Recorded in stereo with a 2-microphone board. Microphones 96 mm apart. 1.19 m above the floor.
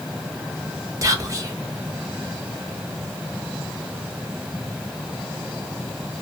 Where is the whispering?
35° right (ahead or behind), 0.7 m.